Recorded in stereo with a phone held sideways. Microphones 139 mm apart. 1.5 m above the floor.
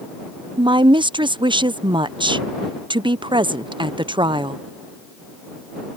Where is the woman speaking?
35° right (ahead or behind).